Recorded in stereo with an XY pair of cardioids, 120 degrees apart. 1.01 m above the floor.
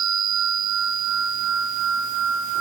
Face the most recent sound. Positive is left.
No sound to turn to.